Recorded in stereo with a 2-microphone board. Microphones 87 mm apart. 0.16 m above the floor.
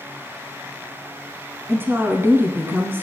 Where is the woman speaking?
25° right (ahead or behind), 1.3 m.